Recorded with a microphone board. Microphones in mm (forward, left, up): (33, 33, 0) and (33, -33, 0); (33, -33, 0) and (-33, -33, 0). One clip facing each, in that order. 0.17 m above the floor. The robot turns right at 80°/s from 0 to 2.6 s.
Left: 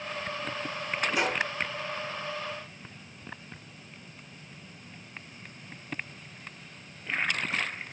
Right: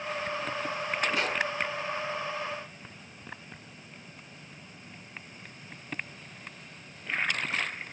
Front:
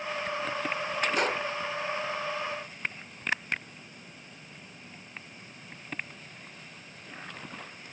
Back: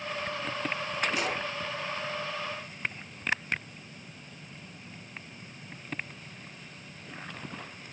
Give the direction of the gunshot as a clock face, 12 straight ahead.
12 o'clock.